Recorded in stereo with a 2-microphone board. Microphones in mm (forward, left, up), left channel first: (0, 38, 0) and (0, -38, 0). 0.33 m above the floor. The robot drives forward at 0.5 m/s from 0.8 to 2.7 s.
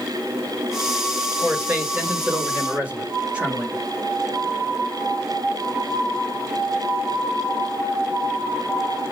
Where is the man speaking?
15° right (ahead or behind), 1.5 m; by 3.8 s 20° right (ahead or behind), 1.4 m.